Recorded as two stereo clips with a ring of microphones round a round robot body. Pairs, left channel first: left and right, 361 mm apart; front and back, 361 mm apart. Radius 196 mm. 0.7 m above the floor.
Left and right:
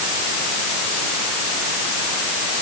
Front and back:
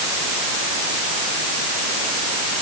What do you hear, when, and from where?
Only background noise.